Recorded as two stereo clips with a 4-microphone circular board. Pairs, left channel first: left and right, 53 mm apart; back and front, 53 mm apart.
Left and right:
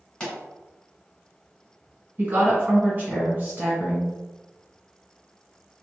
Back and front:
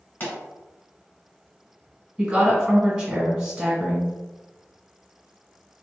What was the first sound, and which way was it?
A pop, 160° left.